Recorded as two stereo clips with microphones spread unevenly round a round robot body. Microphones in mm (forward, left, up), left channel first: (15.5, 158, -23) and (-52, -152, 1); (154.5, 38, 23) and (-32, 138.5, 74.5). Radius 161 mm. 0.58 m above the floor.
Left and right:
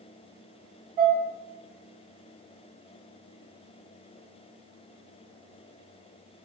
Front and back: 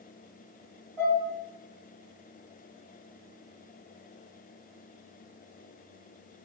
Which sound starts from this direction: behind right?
Dishes clattering, at 1.0 s.